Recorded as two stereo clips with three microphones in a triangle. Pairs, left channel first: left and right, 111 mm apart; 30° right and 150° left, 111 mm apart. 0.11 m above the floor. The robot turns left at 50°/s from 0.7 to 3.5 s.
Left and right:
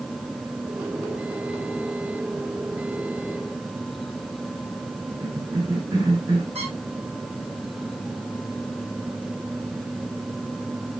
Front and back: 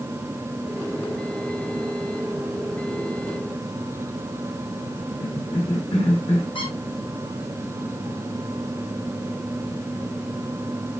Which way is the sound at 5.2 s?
40° right.